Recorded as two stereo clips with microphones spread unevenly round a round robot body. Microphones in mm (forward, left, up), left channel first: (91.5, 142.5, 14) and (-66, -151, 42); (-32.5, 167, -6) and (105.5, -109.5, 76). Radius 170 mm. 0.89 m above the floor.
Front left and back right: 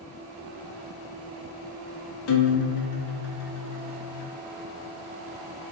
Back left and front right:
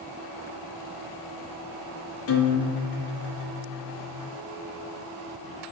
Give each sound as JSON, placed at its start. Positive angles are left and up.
{"t": 2.3, "sound": "a guitar", "azimuth_deg": 85, "distance_m": 0.6}